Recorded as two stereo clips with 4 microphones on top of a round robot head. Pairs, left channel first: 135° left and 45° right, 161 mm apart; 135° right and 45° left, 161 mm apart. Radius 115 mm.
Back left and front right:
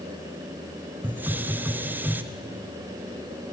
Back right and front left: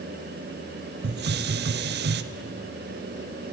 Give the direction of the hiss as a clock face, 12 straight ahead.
11 o'clock.